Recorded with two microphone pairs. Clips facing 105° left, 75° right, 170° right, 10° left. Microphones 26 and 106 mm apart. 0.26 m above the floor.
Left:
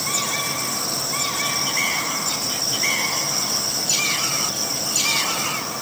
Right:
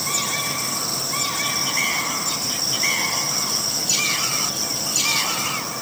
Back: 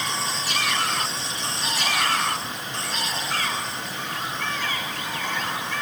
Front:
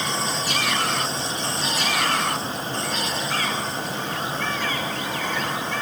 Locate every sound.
Only background noise.